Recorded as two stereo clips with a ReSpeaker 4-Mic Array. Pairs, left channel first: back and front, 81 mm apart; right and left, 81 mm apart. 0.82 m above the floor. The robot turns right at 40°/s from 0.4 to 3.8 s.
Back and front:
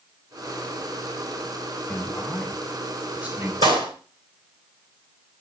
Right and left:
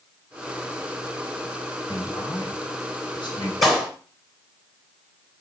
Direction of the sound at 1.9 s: 120° right.